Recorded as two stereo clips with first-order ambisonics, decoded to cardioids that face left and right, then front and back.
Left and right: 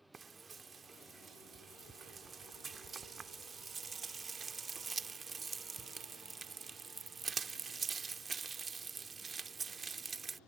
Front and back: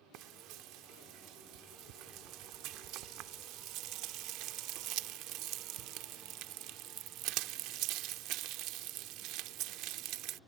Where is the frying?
165° right.